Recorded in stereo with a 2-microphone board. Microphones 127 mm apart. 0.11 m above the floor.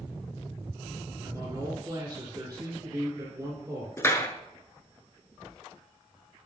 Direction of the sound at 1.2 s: 30° right (ahead or behind).